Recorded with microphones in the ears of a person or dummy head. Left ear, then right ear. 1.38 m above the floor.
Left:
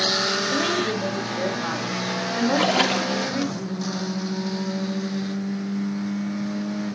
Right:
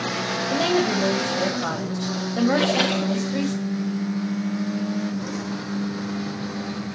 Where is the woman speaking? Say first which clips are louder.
Right 2 dB; 70° right (ahead or behind), 2.5 m.